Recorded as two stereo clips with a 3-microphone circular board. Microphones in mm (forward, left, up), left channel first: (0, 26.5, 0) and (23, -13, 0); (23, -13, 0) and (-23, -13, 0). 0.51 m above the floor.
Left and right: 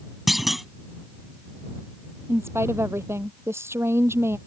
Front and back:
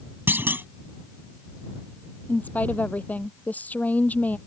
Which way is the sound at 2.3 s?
50° right.